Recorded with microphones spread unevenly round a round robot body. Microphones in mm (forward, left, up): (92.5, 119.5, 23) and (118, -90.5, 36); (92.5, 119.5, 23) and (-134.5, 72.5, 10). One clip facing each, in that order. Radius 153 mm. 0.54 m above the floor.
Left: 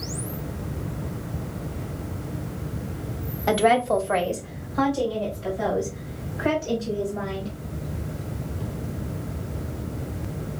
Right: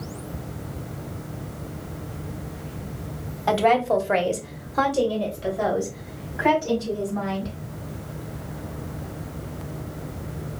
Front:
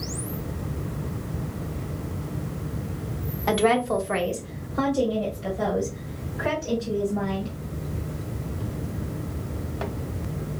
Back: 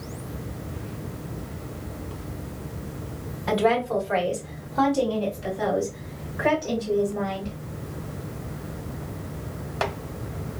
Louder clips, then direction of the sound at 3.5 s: Even, front 1 dB; 35° left.